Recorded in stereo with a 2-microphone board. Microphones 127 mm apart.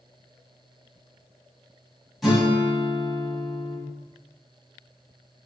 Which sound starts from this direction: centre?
A guitar, at 2.2 s.